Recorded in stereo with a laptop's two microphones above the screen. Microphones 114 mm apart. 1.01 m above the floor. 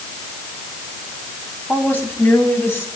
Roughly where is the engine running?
No engine running in this recording.